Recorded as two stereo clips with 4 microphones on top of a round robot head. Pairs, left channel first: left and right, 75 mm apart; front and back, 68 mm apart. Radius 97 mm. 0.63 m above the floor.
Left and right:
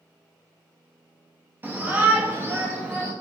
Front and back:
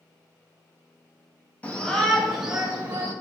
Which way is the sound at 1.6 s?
50° right.